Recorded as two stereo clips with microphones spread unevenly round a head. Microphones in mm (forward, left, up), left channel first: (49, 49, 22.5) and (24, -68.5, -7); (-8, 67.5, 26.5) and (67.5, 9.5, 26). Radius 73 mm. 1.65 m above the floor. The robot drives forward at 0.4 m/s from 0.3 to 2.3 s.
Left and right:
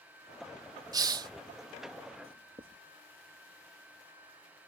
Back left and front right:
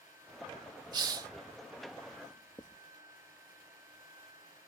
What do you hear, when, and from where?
0.9 s a hiss: 40° right; by 1.3 s 50° right
2.2 s writing: 160° right